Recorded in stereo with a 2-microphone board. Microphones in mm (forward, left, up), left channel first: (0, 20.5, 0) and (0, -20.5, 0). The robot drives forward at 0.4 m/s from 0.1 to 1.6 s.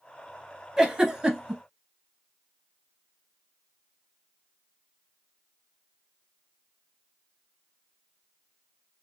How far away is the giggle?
About 0.9 m.